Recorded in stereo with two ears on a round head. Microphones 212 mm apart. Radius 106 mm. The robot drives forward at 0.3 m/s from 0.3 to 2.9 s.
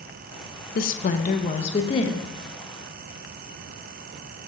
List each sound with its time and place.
0.8 s a woman speaking: 40° left (ahead or behind), 0.5 m; by 2.3 s 20° left (ahead or behind), 0.9 m